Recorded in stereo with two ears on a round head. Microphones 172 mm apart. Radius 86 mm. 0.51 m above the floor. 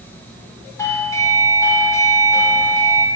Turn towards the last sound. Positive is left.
turn(degrees=15)  # may be behind; listen again after turning